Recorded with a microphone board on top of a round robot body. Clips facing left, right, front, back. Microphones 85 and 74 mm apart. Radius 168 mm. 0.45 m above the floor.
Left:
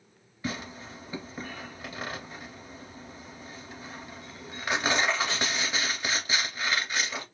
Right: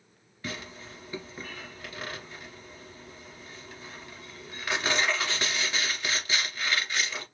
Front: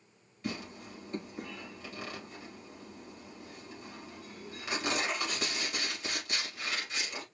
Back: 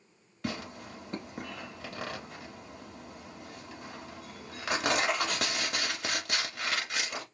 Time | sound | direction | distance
0.4 | tearing paper | 165° left | 2.5 m